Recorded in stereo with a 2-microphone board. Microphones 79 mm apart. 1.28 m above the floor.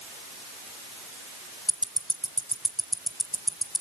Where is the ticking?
Centre (ahead or behind), 1.6 m.